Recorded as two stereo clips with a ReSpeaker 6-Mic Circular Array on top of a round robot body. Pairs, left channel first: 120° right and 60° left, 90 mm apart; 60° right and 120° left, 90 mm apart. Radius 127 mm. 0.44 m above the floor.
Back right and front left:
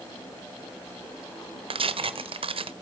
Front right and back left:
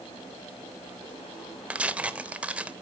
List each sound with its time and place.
1.7 s tearing paper: 40° left, 1.0 m